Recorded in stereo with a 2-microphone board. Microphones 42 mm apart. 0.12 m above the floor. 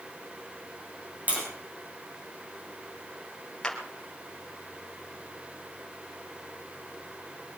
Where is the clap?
15° left (ahead or behind), 2.5 m.